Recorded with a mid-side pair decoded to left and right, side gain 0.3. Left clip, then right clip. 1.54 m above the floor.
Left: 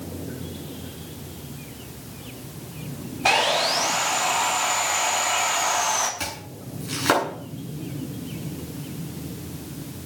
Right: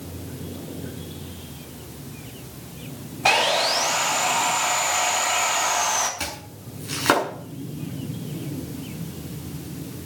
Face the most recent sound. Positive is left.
turn(degrees=-25)